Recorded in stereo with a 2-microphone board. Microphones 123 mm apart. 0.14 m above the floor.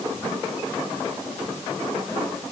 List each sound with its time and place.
Only background noise.